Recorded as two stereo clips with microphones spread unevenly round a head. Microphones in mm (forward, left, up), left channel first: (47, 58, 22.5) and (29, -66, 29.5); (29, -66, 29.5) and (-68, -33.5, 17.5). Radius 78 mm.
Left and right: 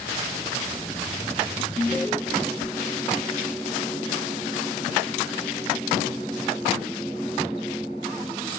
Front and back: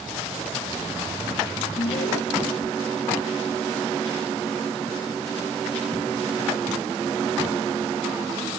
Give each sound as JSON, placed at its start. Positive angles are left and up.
{"t": 1.8, "sound": "an alarm", "azimuth_deg": 5}